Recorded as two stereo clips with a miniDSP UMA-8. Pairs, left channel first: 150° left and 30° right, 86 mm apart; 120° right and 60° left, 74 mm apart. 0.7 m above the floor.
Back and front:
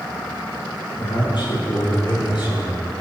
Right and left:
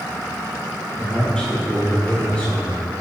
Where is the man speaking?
160° left, 5.5 m; by 2.8 s 165° left, 7 m.